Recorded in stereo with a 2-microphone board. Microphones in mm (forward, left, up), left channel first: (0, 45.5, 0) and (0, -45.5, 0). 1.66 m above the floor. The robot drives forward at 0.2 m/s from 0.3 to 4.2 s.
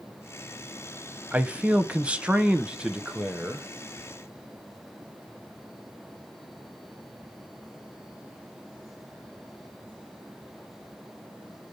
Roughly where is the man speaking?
Centre.